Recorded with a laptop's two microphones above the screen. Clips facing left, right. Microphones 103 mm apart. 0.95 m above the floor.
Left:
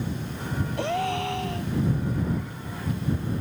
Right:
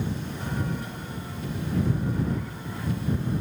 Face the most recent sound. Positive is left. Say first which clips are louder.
# left 10 dB
turn(degrees=80)